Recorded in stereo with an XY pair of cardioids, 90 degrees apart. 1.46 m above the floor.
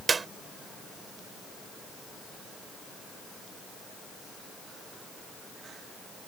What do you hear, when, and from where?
0.1 s a clap: 35° right